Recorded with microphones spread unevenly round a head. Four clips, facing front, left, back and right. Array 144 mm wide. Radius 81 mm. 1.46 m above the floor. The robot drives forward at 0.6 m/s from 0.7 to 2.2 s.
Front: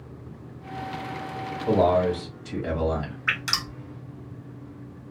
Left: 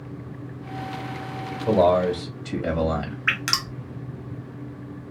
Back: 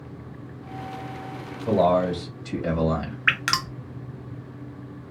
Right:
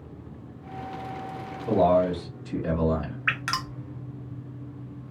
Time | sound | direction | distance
1.7 | a man speaking | 105° left | 1.6 m
3.3 | dripping | 155° left | 0.7 m